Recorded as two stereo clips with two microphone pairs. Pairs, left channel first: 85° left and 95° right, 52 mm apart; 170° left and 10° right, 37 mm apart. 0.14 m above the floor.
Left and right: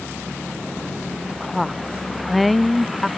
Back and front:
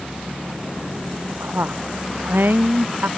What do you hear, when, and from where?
1.3 s a woman speaking: 5° right